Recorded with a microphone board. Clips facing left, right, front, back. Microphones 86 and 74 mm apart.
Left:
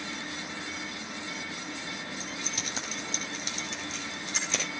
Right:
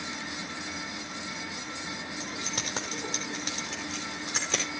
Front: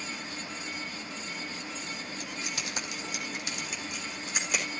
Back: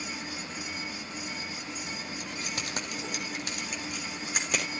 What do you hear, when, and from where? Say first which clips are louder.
2.2 s keys jangling: right 2 dB, back 1 dB; 130° right, 3 m; by 4.6 s 140° right, 6 m